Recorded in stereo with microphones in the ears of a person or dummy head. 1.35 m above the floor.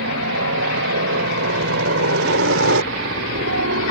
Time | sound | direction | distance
0.0 | a helicopter | 80° right | ?